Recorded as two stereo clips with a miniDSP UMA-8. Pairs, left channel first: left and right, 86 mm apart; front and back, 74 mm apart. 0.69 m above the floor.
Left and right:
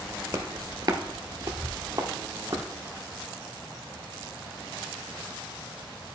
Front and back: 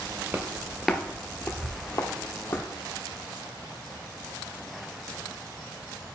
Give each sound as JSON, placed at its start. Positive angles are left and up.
{"t": 0.3, "sound": "footsteps", "azimuth_deg": -125, "distance_m": 0.8}